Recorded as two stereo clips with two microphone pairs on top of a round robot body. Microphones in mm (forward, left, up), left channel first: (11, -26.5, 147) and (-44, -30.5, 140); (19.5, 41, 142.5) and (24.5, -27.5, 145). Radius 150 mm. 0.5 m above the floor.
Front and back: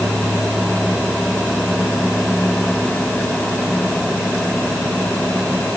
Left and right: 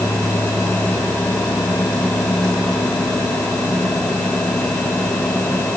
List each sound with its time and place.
Only background noise.